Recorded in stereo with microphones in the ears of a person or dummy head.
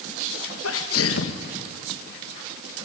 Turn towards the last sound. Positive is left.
turn(degrees=70)  # may be behind; listen again after turning